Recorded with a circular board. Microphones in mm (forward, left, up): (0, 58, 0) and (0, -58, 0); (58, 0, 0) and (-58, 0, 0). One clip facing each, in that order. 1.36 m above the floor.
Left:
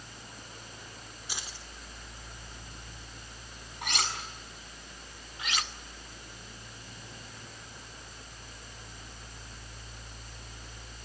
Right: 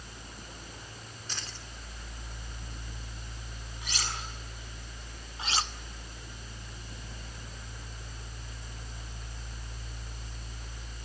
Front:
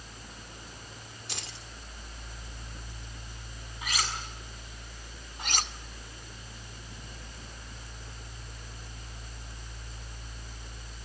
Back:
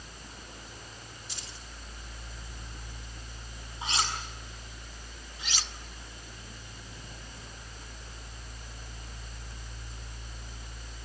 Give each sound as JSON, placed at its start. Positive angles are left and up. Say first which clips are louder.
{"t": 1.3, "sound": "keys jangling", "louder": "even, front 3 dB", "azimuth_deg": 10, "distance_m": 2.5}
{"t": 3.8, "sound": "cutlery clinking", "louder": "left 5 dB, back 2 dB", "azimuth_deg": 115, "distance_m": 6.5}
{"t": 5.4, "sound": "cutlery clinking", "louder": "right 3 dB, front 6 dB", "azimuth_deg": -35, "distance_m": 1.2}